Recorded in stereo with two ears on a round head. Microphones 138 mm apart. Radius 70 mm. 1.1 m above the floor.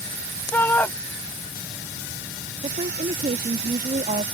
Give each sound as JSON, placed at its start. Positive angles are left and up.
{"t": 0.5, "sound": "a shout", "side_deg": 10}
{"t": 2.6, "sound": "a woman speaking", "side_deg": -45}